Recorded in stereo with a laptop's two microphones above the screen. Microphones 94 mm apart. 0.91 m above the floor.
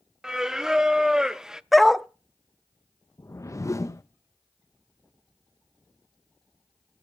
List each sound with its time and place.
0.2 s singing: 5° right (ahead or behind), 0.5 m
1.7 s a dog barking: centre (ahead or behind), 0.5 m
3.2 s a whoosh: 35° left (ahead or behind), 0.8 m